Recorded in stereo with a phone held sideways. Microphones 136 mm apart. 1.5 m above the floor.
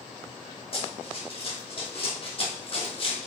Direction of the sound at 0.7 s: 45° left (ahead or behind).